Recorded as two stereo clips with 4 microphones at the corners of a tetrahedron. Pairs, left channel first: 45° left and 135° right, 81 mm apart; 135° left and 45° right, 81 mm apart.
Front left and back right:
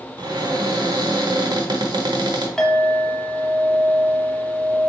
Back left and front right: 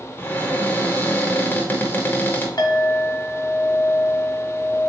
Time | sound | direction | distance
0.2 | a cupboard door | 160° right | 0.9 m
2.6 | a clink | 125° left | 1.0 m